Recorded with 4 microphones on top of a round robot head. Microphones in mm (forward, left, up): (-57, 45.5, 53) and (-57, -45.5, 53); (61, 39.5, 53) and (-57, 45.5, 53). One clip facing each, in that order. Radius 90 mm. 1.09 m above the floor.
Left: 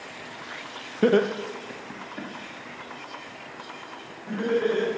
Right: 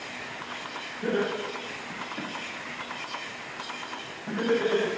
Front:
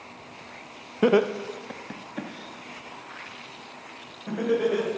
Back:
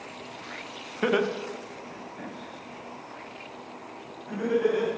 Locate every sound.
1.0 s laughter: 65° left, 0.8 m; by 4.9 s 15° right, 4.5 m